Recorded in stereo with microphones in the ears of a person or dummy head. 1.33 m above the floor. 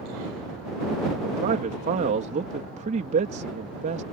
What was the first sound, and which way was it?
A man speaking, 40° right (ahead or behind).